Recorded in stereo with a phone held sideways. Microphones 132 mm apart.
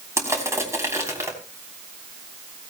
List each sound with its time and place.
0.2 s crushing: 20° right (ahead or behind), 3 m